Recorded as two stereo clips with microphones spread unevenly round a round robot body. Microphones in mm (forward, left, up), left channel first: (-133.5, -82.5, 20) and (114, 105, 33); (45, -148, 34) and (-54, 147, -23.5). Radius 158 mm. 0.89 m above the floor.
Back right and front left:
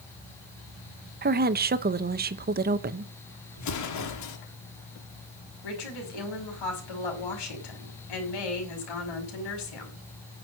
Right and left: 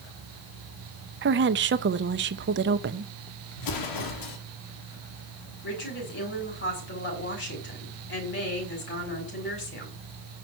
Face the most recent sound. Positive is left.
turn(degrees=-130)